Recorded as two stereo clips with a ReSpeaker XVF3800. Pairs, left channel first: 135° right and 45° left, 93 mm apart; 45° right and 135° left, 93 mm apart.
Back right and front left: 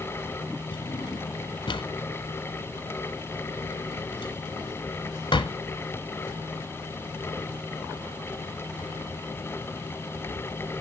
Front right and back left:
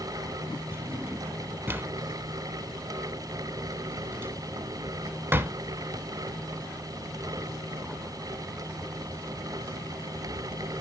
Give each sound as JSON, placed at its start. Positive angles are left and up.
{"t": 0.7, "sound": "a drawer", "azimuth_deg": -160, "distance_m": 0.9}